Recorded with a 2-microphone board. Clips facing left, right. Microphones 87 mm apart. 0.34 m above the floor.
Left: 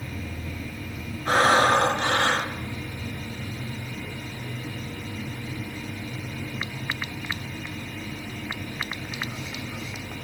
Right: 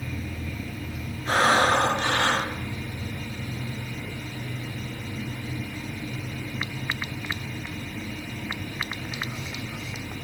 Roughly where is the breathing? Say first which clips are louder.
Left 1 dB; left.